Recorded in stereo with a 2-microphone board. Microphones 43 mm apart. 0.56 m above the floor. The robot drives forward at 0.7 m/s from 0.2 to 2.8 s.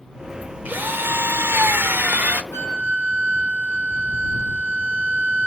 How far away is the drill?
About 0.9 m.